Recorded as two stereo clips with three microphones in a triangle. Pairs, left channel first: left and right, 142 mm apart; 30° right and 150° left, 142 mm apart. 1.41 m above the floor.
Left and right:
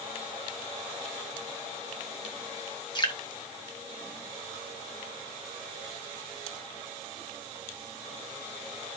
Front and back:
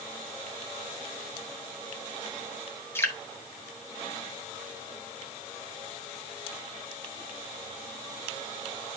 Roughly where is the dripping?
Ahead left.